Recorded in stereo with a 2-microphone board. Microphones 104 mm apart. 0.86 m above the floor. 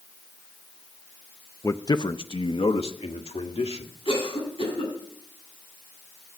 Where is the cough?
50° left (ahead or behind), 8 m.